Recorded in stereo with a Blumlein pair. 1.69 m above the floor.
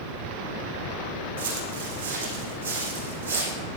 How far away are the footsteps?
About 6.5 m.